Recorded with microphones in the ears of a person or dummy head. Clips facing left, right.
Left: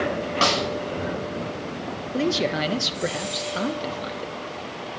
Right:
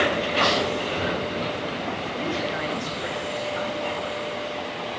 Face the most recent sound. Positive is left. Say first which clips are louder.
# left 8 dB
turn(degrees=50)  # may be behind; listen again after turning